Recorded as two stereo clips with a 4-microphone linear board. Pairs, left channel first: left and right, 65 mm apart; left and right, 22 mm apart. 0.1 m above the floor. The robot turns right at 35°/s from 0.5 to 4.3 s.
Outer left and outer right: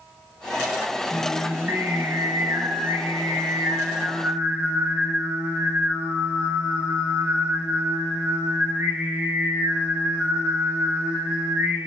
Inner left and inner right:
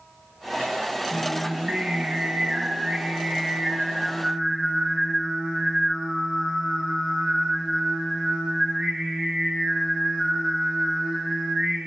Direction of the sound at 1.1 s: 140° right.